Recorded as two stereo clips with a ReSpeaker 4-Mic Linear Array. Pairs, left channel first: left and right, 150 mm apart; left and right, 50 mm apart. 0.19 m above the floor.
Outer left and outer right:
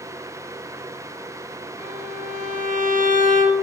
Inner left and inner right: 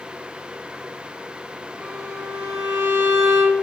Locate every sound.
1.8 s a violin: 65° right (ahead or behind), 0.8 m